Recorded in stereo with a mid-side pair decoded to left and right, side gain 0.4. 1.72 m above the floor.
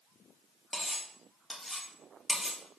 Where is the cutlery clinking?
10° left, 2.5 m.